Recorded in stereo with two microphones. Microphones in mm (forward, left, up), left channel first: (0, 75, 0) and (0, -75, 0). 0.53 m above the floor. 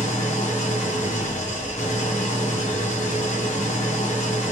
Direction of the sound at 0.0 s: 50° left (ahead or behind).